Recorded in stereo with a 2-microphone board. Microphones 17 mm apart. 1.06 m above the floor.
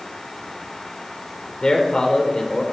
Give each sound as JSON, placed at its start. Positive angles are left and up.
{"t": 1.6, "sound": "a man speaking", "side_deg": 50, "distance_m": 3.5}